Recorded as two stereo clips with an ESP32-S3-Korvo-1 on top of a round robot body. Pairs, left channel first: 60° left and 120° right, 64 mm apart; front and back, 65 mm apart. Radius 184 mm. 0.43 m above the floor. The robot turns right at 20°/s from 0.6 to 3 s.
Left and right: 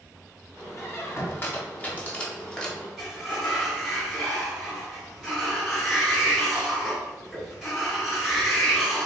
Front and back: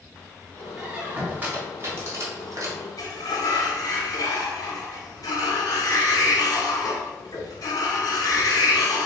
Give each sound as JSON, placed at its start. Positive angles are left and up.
{"t": 0.8, "sound": "a squeak", "azimuth_deg": 105, "distance_m": 1.1}
{"t": 3.0, "sound": "a sliding door", "azimuth_deg": -30, "distance_m": 1.3}